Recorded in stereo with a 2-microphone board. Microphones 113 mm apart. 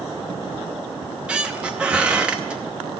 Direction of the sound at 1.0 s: 10° right (ahead or behind).